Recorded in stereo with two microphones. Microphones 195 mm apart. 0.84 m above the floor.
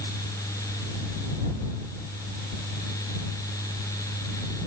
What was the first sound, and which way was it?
Only background noise.